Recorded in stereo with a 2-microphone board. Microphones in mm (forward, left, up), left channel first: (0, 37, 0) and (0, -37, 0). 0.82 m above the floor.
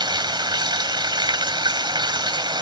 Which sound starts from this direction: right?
Running water, at 0.0 s.